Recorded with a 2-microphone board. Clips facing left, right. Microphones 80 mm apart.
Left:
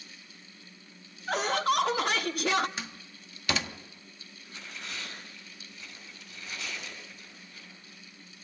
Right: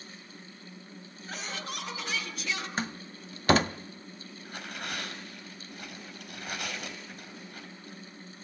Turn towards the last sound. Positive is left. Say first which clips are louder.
# right 5 dB
turn(degrees=-60)  # may be behind; listen again after turning